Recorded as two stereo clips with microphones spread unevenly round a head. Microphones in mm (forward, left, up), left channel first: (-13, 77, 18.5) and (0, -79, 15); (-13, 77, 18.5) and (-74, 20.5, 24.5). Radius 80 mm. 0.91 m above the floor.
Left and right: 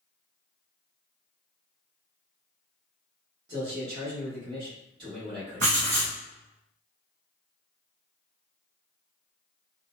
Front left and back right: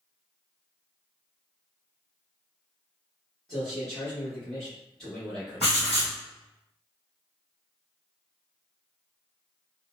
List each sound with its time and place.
3.5 s a man speaking: 35° right, 1.2 m
5.6 s writing: 40° right, 1.3 m